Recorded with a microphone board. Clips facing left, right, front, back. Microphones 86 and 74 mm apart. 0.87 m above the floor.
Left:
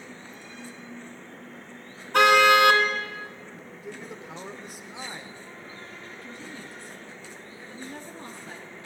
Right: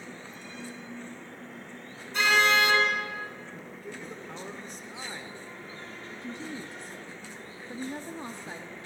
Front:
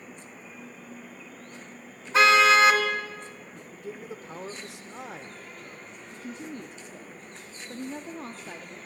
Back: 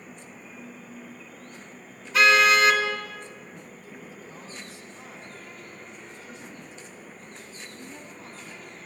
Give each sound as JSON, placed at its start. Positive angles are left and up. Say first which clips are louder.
{"t": 2.1, "sound": "a car horn", "louder": "left 7 dB, front 1 dB", "azimuth_deg": 60, "distance_m": 3.5}
{"t": 3.7, "sound": "a man speaking", "louder": "left 3 dB, front 5 dB", "azimuth_deg": 5, "distance_m": 2.5}
{"t": 6.1, "sound": "a woman speaking", "louder": "right 6 dB, front 4 dB", "azimuth_deg": -25, "distance_m": 1.6}